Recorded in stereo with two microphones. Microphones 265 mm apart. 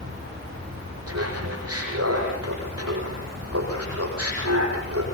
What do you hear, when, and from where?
0.0 s running water: 55° right (ahead or behind), 6 m
1.1 s laughter: 65° right (ahead or behind), 9 m